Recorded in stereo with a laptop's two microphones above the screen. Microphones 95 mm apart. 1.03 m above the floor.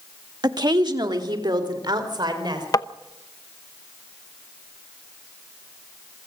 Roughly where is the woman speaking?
Right.